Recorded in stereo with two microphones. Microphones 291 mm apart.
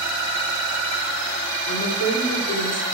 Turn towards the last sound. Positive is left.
turn(degrees=60)  # may be behind; listen again after turning